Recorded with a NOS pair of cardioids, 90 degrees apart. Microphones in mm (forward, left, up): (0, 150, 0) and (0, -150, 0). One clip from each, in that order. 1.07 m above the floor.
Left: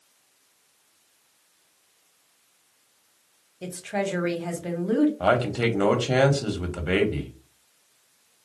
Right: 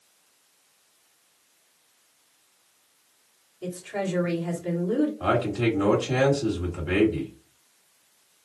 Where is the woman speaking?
60° left, 1.1 m.